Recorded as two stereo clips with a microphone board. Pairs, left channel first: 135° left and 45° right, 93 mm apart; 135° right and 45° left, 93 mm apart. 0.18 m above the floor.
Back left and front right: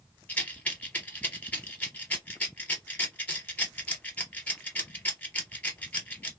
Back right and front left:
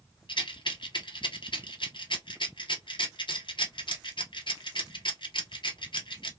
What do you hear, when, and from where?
0.3 s a rattle: 155° right, 1.0 m